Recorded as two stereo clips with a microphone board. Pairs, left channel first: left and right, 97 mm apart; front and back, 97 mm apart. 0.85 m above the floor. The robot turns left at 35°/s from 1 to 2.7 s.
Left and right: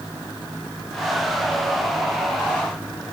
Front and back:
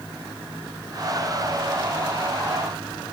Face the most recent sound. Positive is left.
No sound to turn to.